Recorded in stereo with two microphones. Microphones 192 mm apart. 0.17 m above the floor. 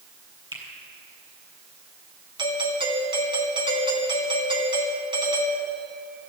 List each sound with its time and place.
0.5 s a finger snap: 25° right (ahead or behind), 4 m
2.4 s a doorbell: 25° right (ahead or behind), 2.5 m